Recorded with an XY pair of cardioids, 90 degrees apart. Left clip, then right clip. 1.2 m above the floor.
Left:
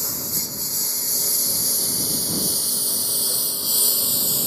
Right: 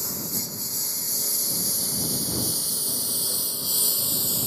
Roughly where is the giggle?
I don't hear a giggle.